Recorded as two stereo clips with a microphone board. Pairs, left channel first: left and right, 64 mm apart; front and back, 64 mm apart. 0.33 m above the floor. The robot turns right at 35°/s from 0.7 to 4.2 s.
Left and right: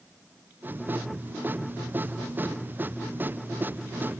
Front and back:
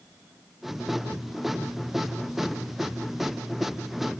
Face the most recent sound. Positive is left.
No sound to turn to.